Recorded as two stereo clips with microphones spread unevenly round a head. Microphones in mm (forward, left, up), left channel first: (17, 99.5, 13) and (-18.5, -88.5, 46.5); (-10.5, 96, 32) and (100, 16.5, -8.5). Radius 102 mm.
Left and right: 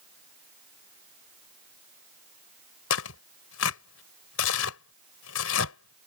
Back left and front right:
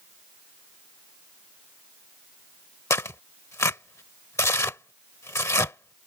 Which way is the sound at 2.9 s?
80° left.